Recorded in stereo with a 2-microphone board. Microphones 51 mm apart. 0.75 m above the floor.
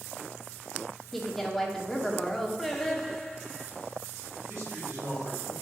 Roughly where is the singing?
Centre.